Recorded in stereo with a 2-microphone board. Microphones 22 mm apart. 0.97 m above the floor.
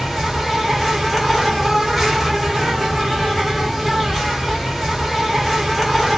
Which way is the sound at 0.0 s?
5° right (ahead or behind).